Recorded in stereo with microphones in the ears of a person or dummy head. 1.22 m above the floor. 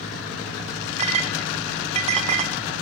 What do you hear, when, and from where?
1.0 s a clink: 35° right (ahead or behind), 0.5 m